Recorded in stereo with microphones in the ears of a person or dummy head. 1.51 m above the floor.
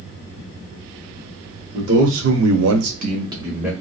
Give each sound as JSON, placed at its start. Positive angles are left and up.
{"t": 1.7, "sound": "a man speaking", "side_deg": -60, "distance_m": 1.1}